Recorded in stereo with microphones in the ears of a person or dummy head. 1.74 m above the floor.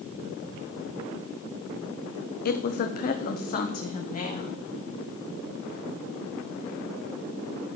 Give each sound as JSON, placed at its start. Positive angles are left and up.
{"t": 2.5, "sound": "a woman speaking", "side_deg": 50, "distance_m": 0.5}